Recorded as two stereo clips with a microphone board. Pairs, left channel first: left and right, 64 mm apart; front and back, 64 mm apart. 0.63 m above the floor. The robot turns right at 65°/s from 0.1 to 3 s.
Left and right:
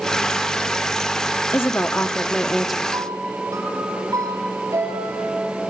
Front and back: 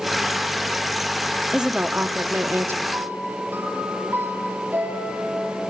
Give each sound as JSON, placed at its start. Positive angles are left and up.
{"t": 1.5, "sound": "a woman speaking", "azimuth_deg": 105, "distance_m": 1.2}
{"t": 2.9, "sound": "a piano", "azimuth_deg": -130, "distance_m": 5.5}